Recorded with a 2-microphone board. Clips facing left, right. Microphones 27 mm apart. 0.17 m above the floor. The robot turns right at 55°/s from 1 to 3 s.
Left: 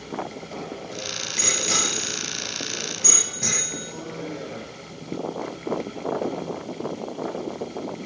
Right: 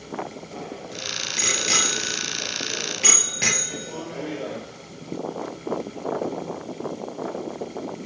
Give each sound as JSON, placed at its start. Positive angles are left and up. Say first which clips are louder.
{"t": 0.5, "sound": "a bicycle bell", "louder": "left 1 dB", "side_deg": 10, "distance_m": 2.5}